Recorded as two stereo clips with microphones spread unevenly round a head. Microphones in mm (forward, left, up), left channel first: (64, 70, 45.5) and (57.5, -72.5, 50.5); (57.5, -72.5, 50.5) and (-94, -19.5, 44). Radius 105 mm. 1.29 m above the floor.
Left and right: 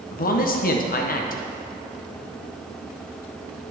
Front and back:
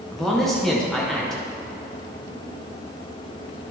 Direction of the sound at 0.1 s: 70° left.